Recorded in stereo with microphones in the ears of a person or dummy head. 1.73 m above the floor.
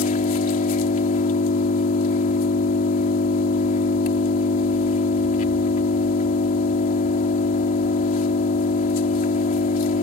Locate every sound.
0.0 s an engine running: 45° left (ahead or behind)